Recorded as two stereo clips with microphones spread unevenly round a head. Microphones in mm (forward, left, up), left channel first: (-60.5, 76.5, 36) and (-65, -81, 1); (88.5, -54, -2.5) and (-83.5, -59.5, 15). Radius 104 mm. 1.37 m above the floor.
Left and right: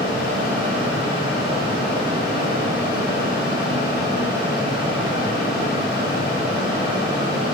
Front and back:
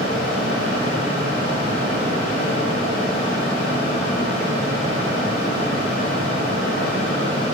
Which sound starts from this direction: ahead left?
A fan, at 0.0 s.